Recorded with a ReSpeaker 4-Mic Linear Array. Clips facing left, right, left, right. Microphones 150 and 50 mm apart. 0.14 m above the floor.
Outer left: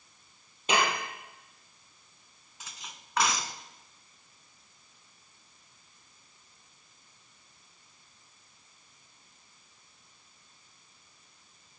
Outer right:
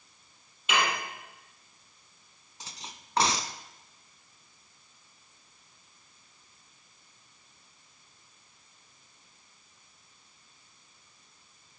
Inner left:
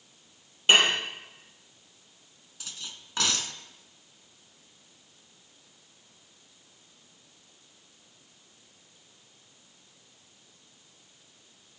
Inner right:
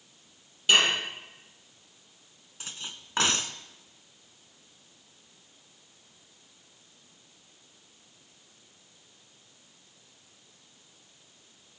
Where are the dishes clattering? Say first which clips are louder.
Outer left 1 dB, inner left 2 dB; 40° left (ahead or behind), 2.5 m.